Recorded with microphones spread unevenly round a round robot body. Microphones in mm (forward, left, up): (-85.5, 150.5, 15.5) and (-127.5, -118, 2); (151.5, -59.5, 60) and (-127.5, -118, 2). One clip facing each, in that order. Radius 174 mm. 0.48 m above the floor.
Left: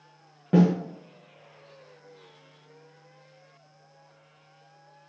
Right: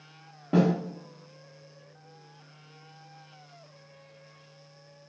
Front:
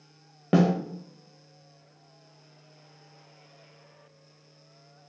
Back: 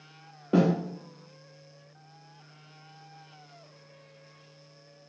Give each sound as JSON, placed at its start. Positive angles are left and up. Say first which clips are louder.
{"t": 0.5, "sound": "a snare drum", "louder": "left 3 dB, front 1 dB", "azimuth_deg": 5, "distance_m": 1.1}